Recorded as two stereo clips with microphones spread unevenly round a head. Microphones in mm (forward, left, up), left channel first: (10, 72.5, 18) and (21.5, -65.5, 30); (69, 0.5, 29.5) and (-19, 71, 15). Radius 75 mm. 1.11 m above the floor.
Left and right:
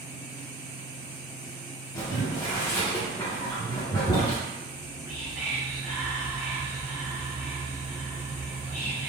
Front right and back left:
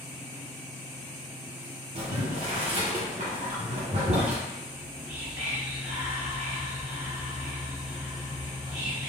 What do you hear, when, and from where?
1.9 s boiling: 160° left, 0.9 m
4.7 s whispering: 165° right, 1.8 m